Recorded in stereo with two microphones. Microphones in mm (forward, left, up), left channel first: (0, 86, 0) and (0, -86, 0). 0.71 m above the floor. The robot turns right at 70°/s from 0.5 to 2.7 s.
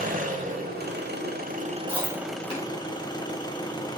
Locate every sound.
0.0 s an engine running: 130° right, 1.1 m; by 4.0 s 25° left, 1.1 m
1.9 s chewing: 10° right (ahead or behind), 3 m; by 2.7 s 40° left (ahead or behind), 3 m